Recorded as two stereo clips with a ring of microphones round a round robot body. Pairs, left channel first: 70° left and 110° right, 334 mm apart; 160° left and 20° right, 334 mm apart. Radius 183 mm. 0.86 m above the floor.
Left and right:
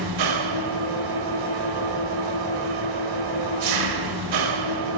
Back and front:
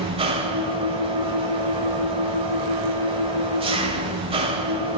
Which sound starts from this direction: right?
An engine running, at 0.0 s.